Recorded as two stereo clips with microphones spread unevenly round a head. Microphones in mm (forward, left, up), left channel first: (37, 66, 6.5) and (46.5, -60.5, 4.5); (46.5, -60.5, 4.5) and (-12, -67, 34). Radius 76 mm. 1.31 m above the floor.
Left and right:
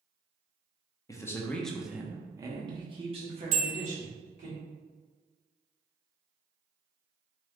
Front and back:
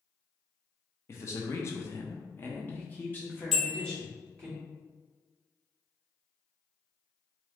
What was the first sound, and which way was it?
A man speaking, 30° left.